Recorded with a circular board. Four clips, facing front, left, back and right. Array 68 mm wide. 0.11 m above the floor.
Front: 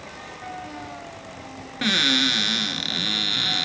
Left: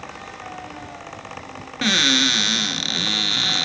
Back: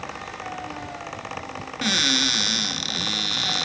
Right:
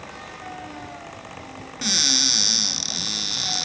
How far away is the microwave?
No microwave in this recording.